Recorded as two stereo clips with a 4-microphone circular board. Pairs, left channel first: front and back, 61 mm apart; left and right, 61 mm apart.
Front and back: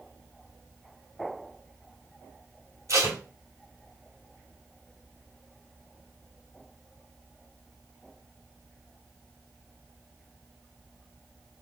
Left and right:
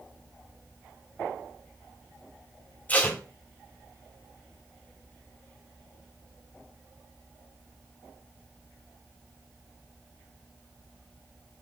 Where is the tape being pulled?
150° left, 1.5 m.